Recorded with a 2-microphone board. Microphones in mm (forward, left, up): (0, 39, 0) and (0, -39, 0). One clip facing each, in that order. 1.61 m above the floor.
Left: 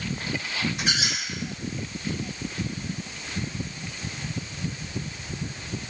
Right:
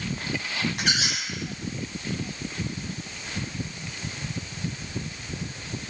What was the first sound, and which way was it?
A squeak, 65° right (ahead or behind).